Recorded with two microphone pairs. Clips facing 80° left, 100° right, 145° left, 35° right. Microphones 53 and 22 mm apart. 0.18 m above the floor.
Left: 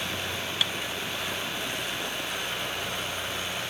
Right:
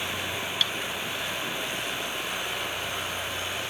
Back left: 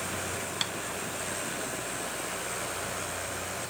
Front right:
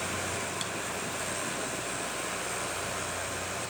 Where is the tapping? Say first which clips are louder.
Even, back left 3 dB; 145° left, 0.9 m.